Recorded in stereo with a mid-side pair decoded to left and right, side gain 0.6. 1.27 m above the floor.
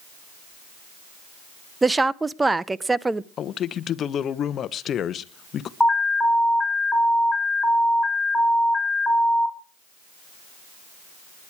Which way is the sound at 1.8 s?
15° right.